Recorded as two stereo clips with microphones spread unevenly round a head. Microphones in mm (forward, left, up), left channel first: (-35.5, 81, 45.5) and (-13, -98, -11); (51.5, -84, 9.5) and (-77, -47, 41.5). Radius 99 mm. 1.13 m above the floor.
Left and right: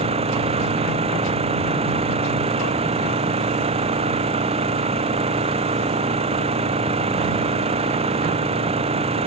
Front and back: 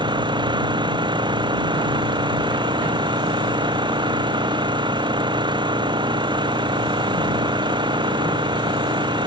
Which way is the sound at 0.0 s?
140° right.